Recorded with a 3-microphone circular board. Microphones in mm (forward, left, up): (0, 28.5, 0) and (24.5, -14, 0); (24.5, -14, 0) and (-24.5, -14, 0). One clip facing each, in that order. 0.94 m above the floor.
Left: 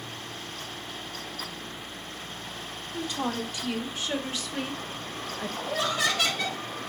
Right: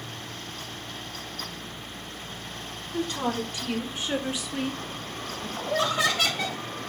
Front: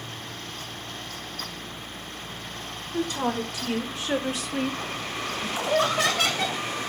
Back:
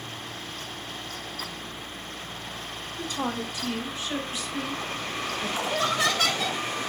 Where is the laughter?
Straight ahead, 1.5 m.